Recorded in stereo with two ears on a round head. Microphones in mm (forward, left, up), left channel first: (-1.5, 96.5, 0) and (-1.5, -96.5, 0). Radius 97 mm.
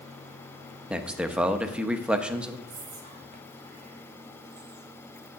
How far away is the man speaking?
About 0.7 m.